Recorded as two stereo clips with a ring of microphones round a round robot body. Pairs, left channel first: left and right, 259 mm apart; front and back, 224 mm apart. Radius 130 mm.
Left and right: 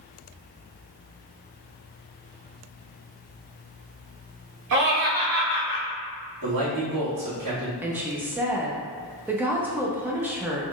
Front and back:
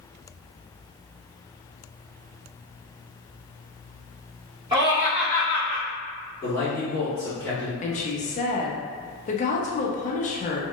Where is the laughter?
110° right, 1.1 m; by 5.8 s 50° left, 0.9 m.